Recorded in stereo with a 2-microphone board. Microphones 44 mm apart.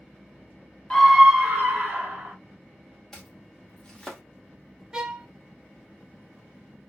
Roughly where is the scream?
Centre.